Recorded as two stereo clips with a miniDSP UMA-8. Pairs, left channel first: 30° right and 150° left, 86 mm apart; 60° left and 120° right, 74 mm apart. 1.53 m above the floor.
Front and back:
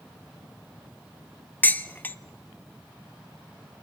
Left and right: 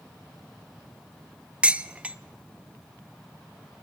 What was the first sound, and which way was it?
Dishes clattering, 70° right.